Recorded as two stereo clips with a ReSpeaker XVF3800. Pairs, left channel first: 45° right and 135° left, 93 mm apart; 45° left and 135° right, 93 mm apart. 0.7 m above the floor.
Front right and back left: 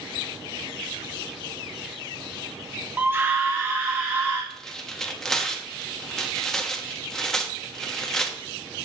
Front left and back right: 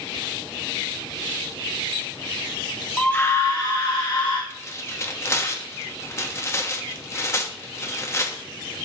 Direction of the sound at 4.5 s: 35° left.